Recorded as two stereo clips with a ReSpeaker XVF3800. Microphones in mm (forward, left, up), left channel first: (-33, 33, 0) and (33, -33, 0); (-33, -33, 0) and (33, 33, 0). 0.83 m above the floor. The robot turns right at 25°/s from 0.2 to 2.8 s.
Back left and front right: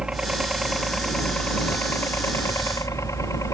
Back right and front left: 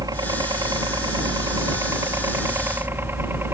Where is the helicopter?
35° left; by 3.5 s 100° left.